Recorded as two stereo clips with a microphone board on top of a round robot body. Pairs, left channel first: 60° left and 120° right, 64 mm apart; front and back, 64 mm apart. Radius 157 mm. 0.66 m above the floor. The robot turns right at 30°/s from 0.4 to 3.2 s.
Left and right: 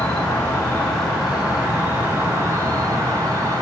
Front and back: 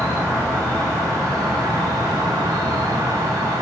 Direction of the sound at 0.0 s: 125° left.